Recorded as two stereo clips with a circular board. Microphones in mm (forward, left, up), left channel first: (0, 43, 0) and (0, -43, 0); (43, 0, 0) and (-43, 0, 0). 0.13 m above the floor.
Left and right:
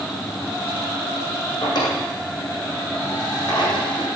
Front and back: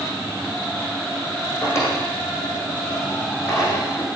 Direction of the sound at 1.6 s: 55° left.